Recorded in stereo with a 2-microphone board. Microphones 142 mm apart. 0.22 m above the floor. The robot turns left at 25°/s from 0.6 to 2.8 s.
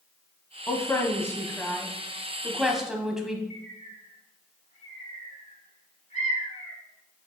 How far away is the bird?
About 1.3 m.